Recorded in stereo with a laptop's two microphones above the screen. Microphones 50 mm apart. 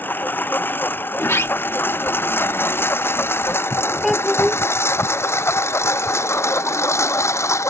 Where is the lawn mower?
40° left (ahead or behind); by 7.7 s 70° left (ahead or behind).